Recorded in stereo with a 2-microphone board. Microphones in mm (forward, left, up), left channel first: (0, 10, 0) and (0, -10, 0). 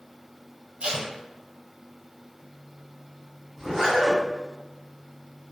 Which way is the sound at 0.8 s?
85° right.